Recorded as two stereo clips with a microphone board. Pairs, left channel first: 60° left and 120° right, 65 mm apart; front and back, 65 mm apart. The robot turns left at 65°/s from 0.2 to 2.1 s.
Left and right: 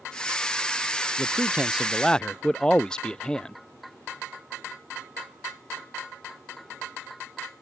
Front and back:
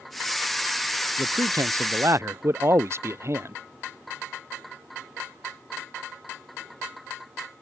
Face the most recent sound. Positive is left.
turn(degrees=135)